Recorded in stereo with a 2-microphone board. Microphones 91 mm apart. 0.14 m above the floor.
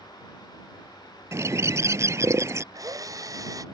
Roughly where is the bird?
Right.